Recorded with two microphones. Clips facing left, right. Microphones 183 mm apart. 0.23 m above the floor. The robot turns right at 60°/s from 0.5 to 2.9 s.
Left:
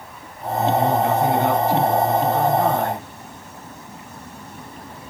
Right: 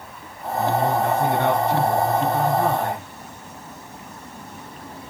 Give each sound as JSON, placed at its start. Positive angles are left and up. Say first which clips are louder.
{"t": 0.6, "sound": "a man speaking", "louder": "left 2 dB", "azimuth_deg": -150, "distance_m": 3.5}